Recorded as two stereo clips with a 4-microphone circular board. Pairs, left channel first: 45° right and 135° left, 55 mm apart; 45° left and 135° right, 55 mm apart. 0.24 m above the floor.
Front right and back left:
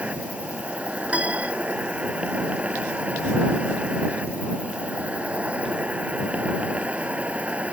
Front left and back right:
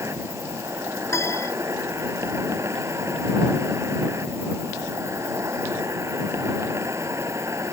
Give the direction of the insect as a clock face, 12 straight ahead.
5 o'clock.